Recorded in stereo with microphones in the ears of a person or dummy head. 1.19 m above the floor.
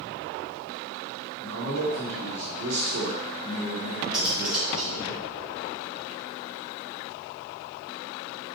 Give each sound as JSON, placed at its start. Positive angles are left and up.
{"t": 1.4, "sound": "a man speaking", "side_deg": -70, "distance_m": 2.5}
{"t": 4.1, "sound": "cutlery clinking", "side_deg": 0, "distance_m": 2.5}